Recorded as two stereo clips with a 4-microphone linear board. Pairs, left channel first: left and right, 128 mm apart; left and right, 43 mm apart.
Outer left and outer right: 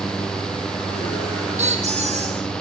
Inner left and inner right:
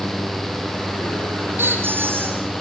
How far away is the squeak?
About 5 m.